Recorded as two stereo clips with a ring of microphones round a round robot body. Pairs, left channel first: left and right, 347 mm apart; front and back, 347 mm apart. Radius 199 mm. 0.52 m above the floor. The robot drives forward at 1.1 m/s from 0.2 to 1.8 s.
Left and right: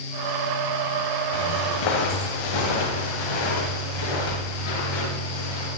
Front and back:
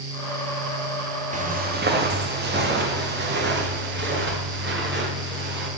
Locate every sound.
1.3 s footsteps: 110° left, 4 m; by 5.7 s 120° left, 8 m